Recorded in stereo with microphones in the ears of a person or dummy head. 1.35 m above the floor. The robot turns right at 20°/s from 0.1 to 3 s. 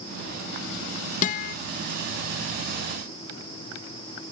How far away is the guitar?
About 0.6 m.